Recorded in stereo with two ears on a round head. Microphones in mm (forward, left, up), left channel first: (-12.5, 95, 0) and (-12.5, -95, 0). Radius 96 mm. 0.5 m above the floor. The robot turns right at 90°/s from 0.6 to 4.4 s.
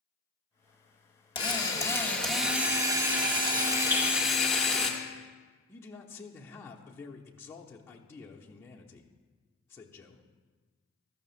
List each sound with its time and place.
1.4 s a drill: 20° left (ahead or behind), 1.3 m; by 4.9 s 5° left (ahead or behind), 1.3 m
3.9 s dripping: 15° right (ahead or behind), 5 m; by 4.0 s 25° right (ahead or behind), 5 m
5.7 s a man speaking: 10° left (ahead or behind), 0.9 m